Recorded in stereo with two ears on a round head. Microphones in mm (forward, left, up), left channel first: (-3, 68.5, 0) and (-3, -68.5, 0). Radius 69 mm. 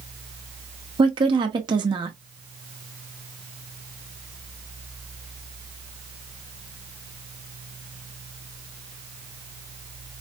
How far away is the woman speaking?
About 0.6 m.